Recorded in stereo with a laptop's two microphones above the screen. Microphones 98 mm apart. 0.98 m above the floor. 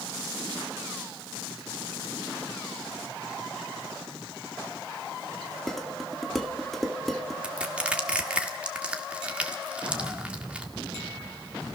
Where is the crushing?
10° right (ahead or behind), 1.5 m.